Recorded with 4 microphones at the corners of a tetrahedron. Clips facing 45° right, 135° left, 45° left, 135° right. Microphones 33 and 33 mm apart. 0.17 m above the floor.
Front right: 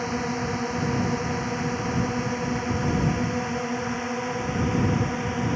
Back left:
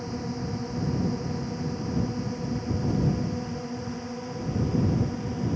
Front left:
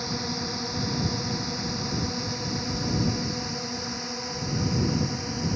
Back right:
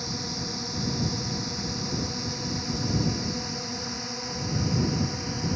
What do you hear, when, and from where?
0.0 s a drone: 30° right; by 5.6 s 45° right